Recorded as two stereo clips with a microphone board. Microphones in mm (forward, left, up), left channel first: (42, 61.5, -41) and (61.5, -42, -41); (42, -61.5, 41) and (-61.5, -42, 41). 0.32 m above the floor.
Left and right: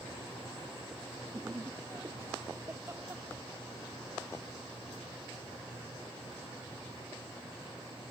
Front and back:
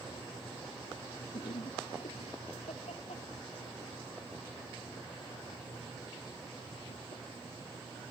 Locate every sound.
1.3 s laughter: 15° right; by 7.2 s 10° right